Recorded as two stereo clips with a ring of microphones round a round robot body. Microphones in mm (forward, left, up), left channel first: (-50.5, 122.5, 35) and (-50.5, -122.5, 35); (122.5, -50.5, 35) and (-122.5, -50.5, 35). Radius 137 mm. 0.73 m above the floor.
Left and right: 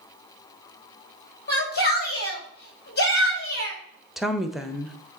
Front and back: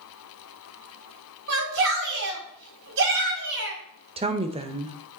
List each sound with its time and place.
1.5 s a shout: 140° left, 3.5 m
4.2 s a woman speaking: straight behind, 0.8 m